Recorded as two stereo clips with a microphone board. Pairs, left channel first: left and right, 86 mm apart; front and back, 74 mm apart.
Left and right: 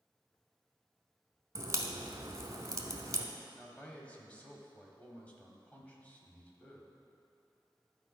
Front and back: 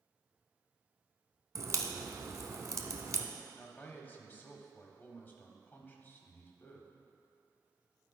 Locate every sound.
1.6 s a crack: 135° right, 0.7 m
3.5 s a man speaking: 35° left, 1.1 m